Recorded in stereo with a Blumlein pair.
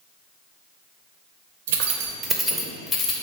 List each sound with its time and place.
1.7 s keys jangling: 60° right, 0.6 m; by 3.1 s 30° left, 0.8 m